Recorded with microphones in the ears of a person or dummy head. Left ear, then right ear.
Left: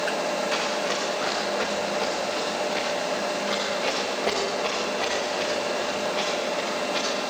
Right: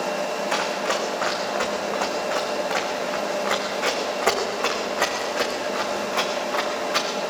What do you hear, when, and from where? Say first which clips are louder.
0.5 s running footsteps: right 2 dB; 20° right (ahead or behind), 4 m; by 7.1 s 65° right (ahead or behind), 6 m